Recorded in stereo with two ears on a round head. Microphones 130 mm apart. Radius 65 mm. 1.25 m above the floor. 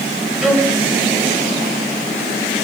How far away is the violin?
About 5.5 m.